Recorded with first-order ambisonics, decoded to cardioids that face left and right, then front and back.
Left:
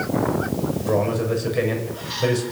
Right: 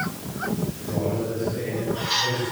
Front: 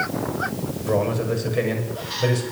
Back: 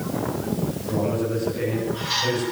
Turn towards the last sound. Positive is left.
turn(degrees=55)